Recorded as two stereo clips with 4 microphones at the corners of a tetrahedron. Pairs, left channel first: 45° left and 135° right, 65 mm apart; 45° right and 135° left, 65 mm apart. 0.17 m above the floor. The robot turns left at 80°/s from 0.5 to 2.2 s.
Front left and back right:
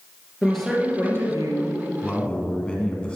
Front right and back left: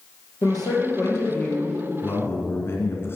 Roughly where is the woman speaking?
Ahead right.